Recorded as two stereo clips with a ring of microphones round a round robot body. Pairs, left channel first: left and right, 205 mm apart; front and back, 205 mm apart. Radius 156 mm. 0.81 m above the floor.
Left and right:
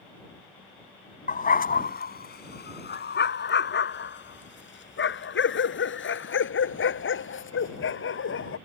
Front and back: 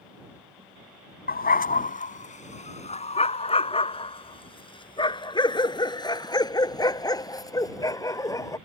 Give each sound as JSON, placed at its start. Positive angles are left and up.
{"t": 1.3, "sound": "a dog barking", "azimuth_deg": 40}